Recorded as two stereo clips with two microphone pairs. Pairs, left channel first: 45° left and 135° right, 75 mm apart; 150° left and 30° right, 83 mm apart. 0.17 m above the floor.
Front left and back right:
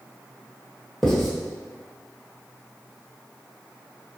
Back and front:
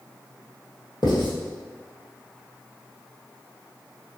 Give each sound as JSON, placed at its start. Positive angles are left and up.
{"t": 1.0, "sound": "writing", "azimuth_deg": 130, "distance_m": 1.1}